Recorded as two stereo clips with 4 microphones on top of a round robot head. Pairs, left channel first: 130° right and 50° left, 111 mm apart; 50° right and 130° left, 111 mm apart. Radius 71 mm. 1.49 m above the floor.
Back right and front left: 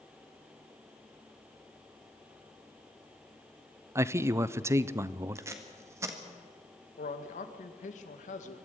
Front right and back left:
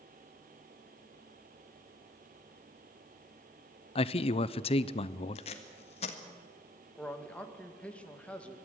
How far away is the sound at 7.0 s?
About 2 m.